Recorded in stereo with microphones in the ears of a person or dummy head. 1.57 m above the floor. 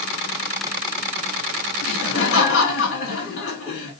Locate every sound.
1.8 s laughter: 80° left, 3.5 m